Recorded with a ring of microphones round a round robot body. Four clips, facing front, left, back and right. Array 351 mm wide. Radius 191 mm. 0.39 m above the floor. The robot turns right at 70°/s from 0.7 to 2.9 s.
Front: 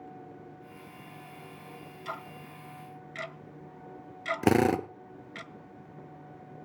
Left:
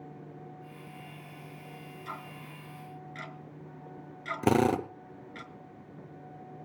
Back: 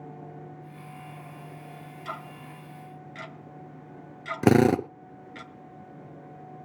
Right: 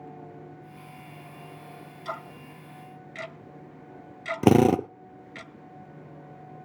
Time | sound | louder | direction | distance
2.0 | ticking | right 7 dB, back 2 dB | 110° right | 1.6 m
4.4 | a drill | right 6 dB, back 5 dB | 125° right | 0.7 m